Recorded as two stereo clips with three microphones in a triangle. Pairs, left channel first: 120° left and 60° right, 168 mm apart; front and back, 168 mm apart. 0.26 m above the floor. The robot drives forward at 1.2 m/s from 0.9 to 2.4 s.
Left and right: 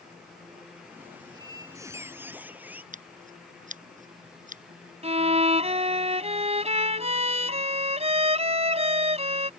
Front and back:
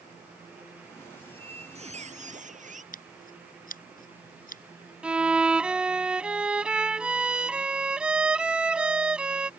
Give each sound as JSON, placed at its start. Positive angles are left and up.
{"t": 1.2, "sound": "a squeak", "azimuth_deg": -120}
{"t": 2.9, "sound": "scissors", "azimuth_deg": -25}
{"t": 5.0, "sound": "a violin", "azimuth_deg": -100}